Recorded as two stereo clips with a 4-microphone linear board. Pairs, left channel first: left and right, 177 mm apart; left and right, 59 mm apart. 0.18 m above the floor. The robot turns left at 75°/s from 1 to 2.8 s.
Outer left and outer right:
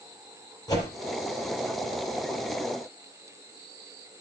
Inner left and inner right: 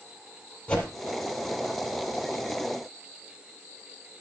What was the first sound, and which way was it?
A whoosh, 20° left (ahead or behind).